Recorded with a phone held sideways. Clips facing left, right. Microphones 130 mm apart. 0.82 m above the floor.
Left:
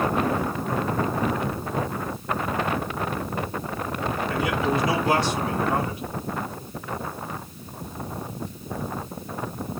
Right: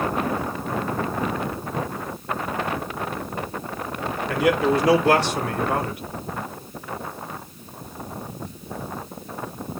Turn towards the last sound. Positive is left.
turn(degrees=-75)  # may be behind; listen again after turning